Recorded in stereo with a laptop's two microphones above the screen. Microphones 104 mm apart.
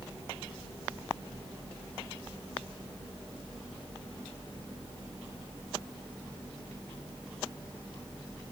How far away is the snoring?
No snoring in this recording.